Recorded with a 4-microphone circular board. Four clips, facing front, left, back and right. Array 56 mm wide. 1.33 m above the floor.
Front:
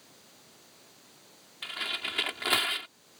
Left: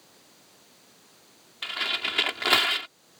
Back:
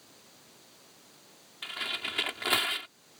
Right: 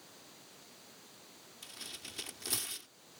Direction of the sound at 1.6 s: 90° left.